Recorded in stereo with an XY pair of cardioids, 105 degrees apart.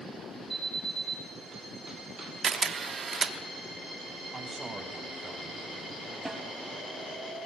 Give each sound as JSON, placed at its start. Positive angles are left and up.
{"t": 0.5, "sound": "an alarm", "azimuth_deg": -10, "distance_m": 9.5}
{"t": 2.4, "sound": "a camera shutter", "azimuth_deg": -40, "distance_m": 1.0}
{"t": 4.3, "sound": "a man speaking", "azimuth_deg": -25, "distance_m": 5.5}
{"t": 6.2, "sound": "a snare drum", "azimuth_deg": -10, "distance_m": 3.5}